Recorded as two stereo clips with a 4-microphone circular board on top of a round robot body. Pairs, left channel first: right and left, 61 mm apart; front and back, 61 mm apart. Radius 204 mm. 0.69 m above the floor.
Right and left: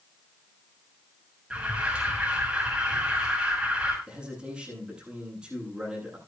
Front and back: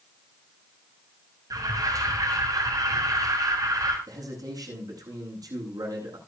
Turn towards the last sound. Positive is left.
turn(degrees=170)